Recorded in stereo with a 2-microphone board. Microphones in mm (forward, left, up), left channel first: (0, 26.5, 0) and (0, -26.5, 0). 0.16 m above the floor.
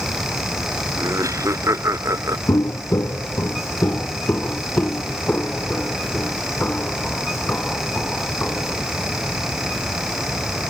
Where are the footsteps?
85° left; by 8.8 s 25° left (ahead or behind).